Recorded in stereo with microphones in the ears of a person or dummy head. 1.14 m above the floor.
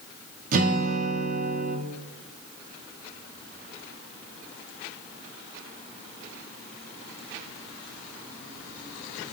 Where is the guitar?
50° right (ahead or behind), 1.3 m.